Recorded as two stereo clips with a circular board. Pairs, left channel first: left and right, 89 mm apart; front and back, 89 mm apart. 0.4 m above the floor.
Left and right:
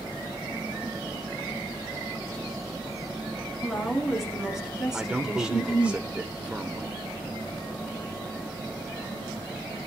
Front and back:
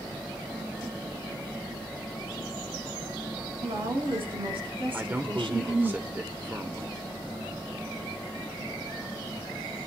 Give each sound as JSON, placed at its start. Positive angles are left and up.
{"t": 3.6, "sound": "a woman speaking", "azimuth_deg": 180, "distance_m": 5.0}
{"t": 4.9, "sound": "a man speaking", "azimuth_deg": -145, "distance_m": 1.0}